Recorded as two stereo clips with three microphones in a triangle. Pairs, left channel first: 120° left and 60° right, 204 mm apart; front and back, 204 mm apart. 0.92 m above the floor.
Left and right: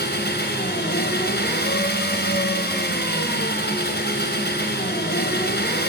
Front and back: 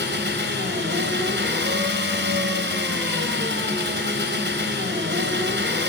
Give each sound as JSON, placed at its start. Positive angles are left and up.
{"t": 0.0, "sound": "an engine running", "azimuth_deg": 155, "distance_m": 4.5}